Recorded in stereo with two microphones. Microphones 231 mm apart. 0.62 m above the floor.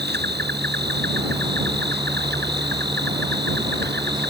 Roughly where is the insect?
Right.